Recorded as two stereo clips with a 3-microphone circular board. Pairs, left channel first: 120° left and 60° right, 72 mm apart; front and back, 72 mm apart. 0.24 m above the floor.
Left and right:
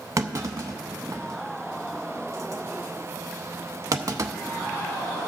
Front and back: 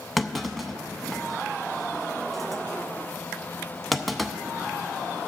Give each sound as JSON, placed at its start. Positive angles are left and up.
{"t": 0.2, "sound": "a clunk", "azimuth_deg": -90, "distance_m": 0.6}